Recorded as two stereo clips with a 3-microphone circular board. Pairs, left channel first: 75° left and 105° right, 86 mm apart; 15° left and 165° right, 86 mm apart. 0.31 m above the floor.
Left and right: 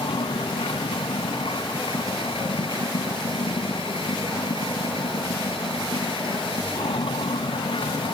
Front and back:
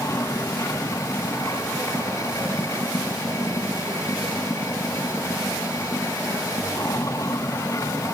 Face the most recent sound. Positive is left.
turn(degrees=70)